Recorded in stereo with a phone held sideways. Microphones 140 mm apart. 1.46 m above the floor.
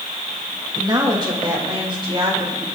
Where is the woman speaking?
30° right (ahead or behind), 2.5 m; by 2.6 s 40° right (ahead or behind), 4 m.